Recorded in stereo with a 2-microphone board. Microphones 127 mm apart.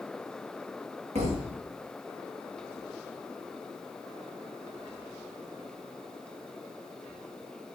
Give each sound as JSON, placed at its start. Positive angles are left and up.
{"t": 1.1, "sound": "a thud", "side_deg": -65, "distance_m": 3.5}